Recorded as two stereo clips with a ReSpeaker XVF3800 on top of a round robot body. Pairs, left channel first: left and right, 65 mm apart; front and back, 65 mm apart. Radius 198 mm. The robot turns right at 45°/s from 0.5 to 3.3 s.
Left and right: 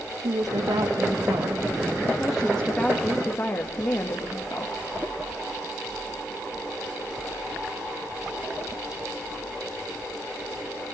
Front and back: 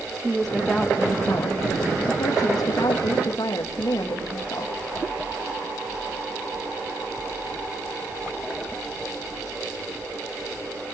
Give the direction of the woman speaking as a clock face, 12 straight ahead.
3 o'clock.